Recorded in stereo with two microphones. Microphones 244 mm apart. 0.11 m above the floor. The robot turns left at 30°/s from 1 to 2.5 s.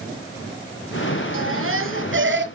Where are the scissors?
No scissors in this recording.